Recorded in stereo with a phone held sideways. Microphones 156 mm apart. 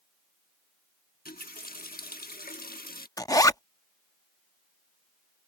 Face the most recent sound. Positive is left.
turn(degrees=25)  # may be behind; listen again after turning